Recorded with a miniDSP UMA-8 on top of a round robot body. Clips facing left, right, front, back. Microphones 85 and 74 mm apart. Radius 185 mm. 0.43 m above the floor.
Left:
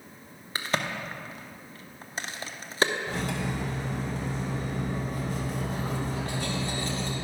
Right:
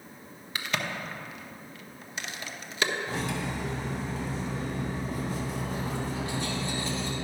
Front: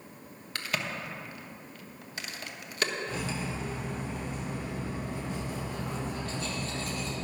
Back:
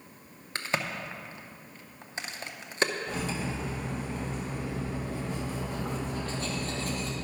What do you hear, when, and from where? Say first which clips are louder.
0.6 s a crack: left 2 dB, back 2 dB; 130° left, 0.9 m
3.1 s cutlery clinking: left 1 dB, back 1 dB; 130° left, 2 m